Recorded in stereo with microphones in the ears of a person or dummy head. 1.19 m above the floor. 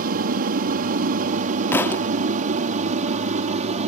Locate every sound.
0.0 s an aircraft: 45° right (ahead or behind); by 3.9 s 35° right (ahead or behind)
1.7 s a thud: 15° left (ahead or behind)